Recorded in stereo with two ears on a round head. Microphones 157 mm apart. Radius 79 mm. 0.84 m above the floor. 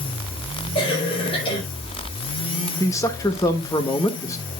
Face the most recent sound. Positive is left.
turn(degrees=20)  # may be behind; listen again after turning